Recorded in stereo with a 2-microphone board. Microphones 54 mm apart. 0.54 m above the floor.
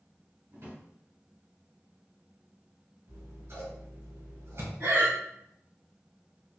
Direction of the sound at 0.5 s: 60° right (ahead or behind).